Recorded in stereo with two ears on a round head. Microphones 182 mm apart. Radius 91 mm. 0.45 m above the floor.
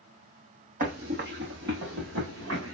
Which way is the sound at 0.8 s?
40° right (ahead or behind).